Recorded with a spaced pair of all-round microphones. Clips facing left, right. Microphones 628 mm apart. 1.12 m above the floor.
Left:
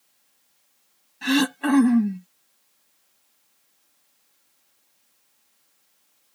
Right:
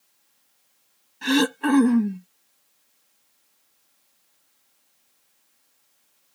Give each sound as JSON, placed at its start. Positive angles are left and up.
{"t": 1.2, "sound": "throat clearing", "side_deg": 10}